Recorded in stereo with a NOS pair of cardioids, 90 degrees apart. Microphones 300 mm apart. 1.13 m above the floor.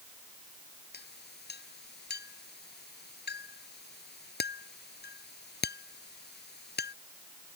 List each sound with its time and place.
0.9 s a clink: 35° left